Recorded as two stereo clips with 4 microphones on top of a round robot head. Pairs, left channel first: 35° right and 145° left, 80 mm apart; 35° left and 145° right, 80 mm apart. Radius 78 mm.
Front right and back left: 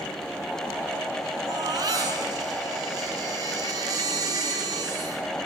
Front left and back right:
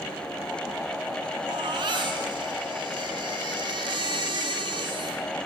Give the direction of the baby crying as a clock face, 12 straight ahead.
6 o'clock.